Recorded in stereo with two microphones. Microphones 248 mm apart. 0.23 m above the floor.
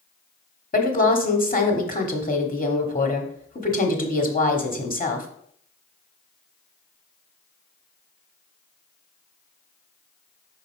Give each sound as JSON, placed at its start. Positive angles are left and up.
{"t": 0.7, "sound": "a woman speaking", "side_deg": 35, "distance_m": 1.2}